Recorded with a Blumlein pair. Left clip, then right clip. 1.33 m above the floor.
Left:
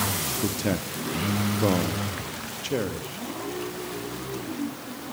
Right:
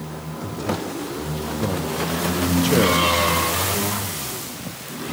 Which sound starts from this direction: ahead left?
A man speaking, at 0.4 s.